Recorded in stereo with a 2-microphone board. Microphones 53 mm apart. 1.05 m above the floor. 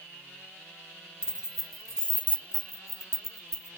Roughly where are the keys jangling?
Centre.